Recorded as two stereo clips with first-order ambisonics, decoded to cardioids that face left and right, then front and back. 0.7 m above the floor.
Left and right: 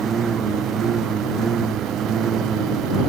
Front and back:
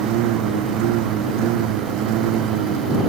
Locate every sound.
0.0 s a lawn mower: 160° right; by 3.1 s 150° right